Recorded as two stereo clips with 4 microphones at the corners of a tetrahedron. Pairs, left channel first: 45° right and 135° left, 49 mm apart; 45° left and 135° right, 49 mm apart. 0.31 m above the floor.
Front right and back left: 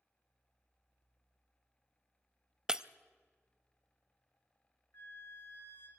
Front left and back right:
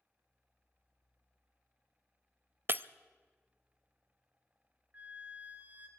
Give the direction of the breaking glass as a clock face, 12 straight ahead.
5 o'clock.